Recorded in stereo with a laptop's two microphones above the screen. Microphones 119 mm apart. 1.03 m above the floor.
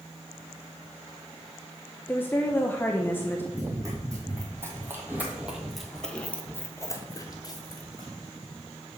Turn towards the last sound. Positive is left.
turn(degrees=35)  # may be behind; listen again after turning